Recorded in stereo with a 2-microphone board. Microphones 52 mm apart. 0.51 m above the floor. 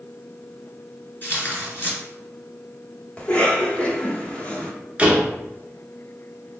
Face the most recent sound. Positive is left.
turn(degrees=-25)  # may be behind; listen again after turning